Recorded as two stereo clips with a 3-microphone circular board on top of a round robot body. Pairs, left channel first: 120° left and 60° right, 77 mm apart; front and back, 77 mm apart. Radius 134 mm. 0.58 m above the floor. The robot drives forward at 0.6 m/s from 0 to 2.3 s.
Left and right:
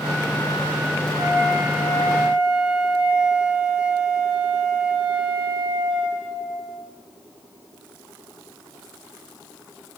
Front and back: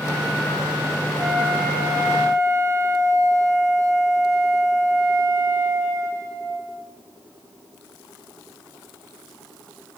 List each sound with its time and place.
1.2 s a flute: 95° right, 1.0 m; by 6.8 s 135° right, 1.2 m